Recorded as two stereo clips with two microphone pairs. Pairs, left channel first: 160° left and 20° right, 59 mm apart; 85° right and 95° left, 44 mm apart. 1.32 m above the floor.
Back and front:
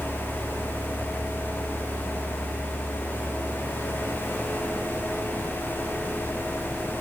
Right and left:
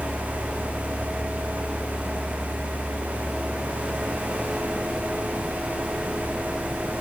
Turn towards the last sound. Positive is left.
No sound to turn to.